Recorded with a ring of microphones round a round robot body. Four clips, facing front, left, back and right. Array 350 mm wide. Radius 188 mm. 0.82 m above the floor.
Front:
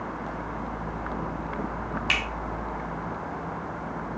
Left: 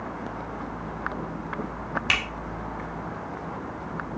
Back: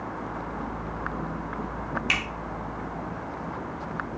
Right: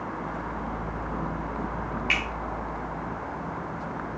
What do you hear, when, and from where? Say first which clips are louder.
2.1 s a finger snap: left 1 dB, front 1 dB; 85° left, 2.5 m